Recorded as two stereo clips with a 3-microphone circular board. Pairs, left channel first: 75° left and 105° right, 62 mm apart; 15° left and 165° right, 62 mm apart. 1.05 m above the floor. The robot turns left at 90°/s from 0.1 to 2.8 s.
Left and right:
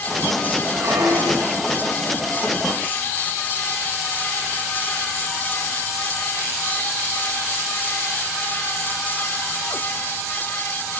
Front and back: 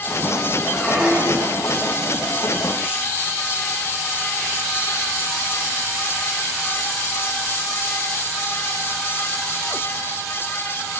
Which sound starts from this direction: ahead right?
A squeak, at 0.7 s.